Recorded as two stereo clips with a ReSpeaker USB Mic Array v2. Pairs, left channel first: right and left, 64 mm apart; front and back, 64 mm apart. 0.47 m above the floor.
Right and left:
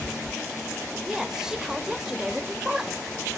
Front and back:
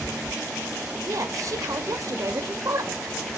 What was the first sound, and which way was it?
A woman speaking, 170° left.